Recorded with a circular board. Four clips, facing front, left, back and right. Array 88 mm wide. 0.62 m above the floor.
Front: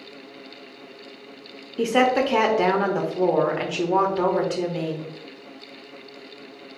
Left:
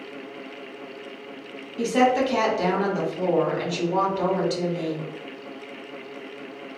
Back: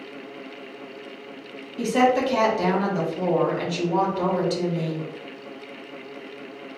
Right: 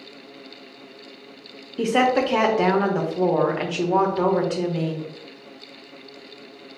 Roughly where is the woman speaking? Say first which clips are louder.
Right 1 dB, even; ahead right.